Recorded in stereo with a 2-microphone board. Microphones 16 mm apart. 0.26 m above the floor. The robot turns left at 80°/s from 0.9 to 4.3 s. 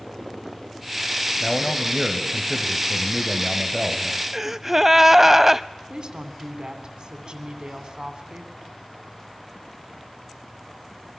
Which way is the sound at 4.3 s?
10° right (ahead or behind).